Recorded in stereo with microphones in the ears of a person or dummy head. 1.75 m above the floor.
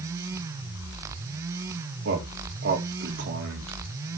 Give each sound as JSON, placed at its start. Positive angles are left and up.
{"t": 2.0, "sound": "a man speaking", "side_deg": -70, "distance_m": 2.0}